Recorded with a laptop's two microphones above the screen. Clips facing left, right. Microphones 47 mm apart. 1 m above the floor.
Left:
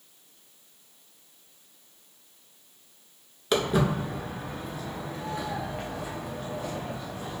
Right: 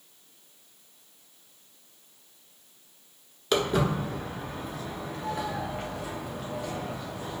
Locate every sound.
3.5 s footsteps: 5° left (ahead or behind), 1.0 m; by 7.4 s 5° right (ahead or behind), 2.0 m